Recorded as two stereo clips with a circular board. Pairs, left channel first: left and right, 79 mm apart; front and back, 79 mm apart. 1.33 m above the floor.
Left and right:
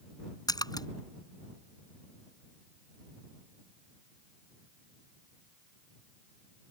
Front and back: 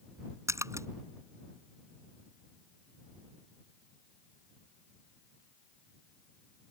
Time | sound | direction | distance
0.5 | a splash | 125° left | ?